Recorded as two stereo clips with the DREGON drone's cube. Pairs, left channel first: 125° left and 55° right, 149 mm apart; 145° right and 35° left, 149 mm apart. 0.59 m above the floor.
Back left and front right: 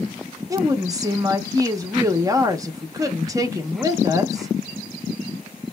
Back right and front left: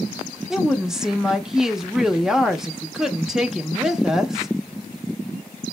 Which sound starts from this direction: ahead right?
A woman speaking, at 0.5 s.